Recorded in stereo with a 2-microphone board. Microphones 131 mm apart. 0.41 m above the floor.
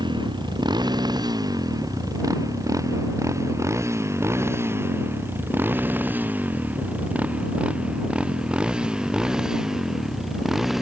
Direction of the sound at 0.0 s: 35° right (ahead or behind).